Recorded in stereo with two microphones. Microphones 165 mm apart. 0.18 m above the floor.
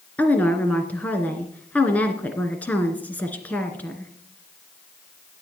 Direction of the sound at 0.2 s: 10° left (ahead or behind).